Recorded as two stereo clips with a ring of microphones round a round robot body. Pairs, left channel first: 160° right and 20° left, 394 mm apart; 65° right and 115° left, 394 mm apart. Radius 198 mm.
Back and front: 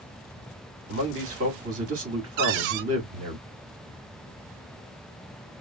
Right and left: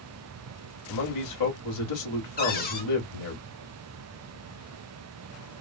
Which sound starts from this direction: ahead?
A cupboard door, at 2.4 s.